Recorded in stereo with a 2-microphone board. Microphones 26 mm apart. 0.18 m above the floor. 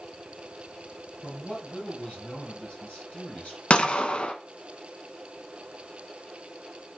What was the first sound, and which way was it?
A man speaking, 55° left (ahead or behind).